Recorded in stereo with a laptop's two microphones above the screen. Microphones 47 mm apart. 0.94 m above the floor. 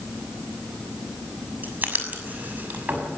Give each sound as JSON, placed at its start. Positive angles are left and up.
{"t": 1.6, "sound": "writing", "side_deg": -40, "distance_m": 6.0}